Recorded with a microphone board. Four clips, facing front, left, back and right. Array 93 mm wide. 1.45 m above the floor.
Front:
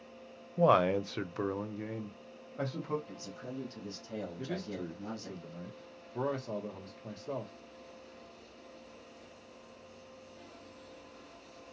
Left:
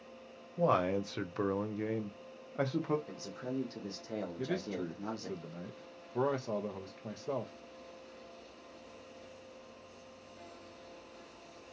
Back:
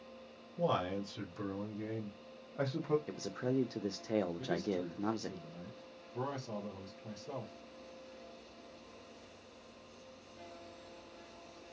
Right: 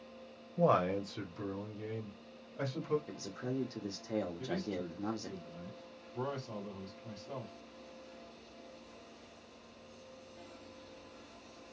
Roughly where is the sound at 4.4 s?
Left.